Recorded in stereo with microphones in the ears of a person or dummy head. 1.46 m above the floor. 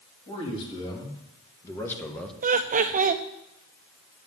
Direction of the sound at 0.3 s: 25° left (ahead or behind).